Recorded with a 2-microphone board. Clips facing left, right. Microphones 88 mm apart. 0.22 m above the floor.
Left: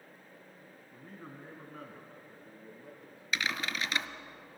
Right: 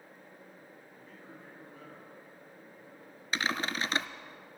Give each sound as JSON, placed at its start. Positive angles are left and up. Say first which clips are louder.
{"t": 0.9, "sound": "a man speaking", "louder": "left 5 dB", "side_deg": 45, "distance_m": 1.9}
{"t": 3.3, "sound": "typing on a keyboard", "louder": "right 2 dB", "side_deg": -30, "distance_m": 0.5}